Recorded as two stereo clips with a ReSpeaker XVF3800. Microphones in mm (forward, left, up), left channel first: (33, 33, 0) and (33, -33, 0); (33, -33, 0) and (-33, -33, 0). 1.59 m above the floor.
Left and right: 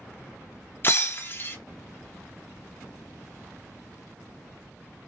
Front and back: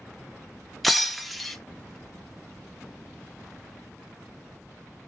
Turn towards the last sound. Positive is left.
turn(degrees=85)